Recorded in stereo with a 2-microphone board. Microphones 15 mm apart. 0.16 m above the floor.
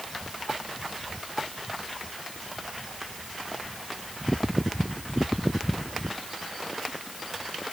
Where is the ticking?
No ticking in this recording.